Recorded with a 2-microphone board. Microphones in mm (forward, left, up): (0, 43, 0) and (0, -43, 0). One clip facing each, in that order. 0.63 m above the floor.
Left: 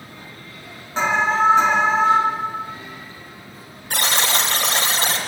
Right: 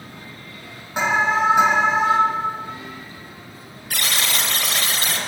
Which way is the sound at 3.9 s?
30° left (ahead or behind).